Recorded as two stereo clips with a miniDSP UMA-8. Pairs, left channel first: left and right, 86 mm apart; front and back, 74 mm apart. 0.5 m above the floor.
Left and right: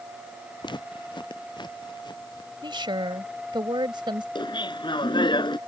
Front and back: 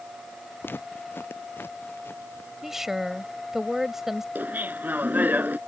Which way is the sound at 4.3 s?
115° left.